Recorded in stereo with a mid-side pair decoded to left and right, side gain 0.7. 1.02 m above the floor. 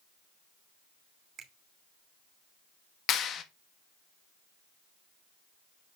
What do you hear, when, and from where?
1.4 s a finger snap: 35° right, 3 m
3.1 s a clap: 45° left, 1.4 m